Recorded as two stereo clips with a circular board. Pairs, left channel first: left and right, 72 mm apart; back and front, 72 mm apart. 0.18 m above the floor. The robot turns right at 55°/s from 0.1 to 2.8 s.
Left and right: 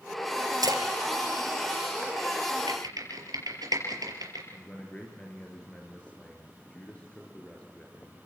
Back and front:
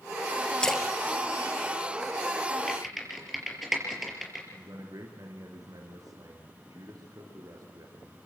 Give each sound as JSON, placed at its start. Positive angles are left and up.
{"t": 0.6, "sound": "a splash", "azimuth_deg": -105, "distance_m": 2.5}
{"t": 2.7, "sound": "typing on a keyboard", "azimuth_deg": -95, "distance_m": 5.0}
{"t": 4.5, "sound": "a man speaking", "azimuth_deg": 20, "distance_m": 3.5}